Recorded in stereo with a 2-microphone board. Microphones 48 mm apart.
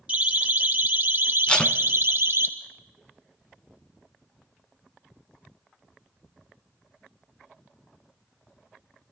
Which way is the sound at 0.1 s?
25° right (ahead or behind).